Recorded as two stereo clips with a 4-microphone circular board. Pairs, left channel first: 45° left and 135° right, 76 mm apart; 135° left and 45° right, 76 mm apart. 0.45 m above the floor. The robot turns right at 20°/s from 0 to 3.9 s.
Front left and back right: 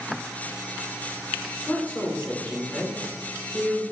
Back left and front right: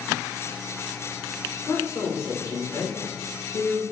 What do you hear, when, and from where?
1.7 s a woman speaking: 95° left, 1.1 m; by 3.8 s 140° left, 1.1 m